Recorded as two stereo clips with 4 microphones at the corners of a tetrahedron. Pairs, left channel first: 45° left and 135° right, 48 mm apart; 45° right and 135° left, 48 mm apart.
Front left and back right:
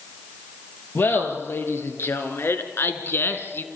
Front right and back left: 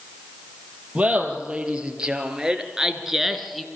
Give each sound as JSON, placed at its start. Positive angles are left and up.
{"t": 0.9, "sound": "laughter", "azimuth_deg": 70, "distance_m": 4.0}